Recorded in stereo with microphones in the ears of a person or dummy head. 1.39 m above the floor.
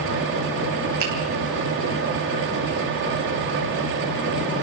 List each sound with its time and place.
1.0 s a finger snap: 75° right (ahead or behind), 6.5 m